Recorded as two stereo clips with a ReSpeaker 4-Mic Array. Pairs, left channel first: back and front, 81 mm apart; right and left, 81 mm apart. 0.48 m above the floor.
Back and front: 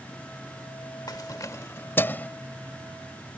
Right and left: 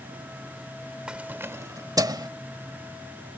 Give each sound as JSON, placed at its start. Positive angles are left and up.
{"t": 1.1, "sound": "keys jangling", "azimuth_deg": 165}